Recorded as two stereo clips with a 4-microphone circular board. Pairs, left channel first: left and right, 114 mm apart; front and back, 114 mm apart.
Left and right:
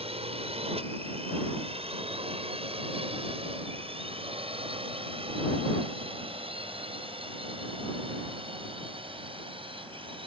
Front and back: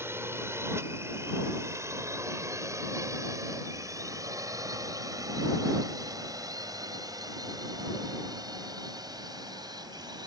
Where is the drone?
110° right; by 10.3 s 125° right.